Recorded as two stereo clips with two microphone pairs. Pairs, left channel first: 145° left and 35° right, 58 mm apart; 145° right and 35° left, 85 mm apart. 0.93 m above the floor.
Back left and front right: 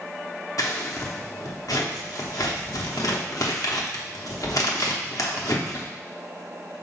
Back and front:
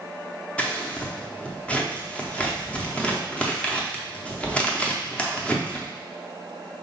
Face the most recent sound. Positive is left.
turn(degrees=135)